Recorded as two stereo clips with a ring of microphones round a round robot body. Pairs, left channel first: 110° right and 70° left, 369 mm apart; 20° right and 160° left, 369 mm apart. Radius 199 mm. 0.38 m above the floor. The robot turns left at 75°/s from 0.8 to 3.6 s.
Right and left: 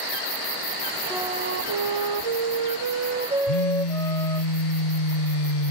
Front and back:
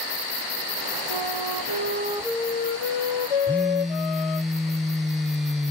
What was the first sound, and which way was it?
A flute, 155° left.